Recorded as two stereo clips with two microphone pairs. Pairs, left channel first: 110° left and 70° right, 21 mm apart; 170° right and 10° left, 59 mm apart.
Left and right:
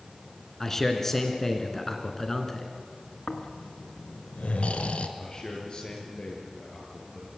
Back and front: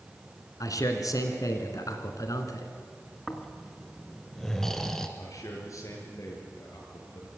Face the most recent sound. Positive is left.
turn(degrees=165)